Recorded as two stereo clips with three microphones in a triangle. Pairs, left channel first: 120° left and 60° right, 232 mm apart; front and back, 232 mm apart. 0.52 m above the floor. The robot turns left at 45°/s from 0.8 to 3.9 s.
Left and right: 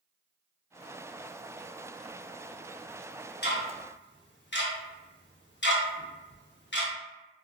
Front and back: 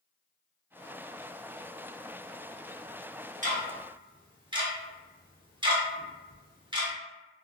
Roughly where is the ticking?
Behind left.